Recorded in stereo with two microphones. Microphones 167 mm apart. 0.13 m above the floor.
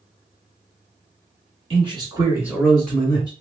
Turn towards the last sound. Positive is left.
turn(degrees=20)  # may be behind; listen again after turning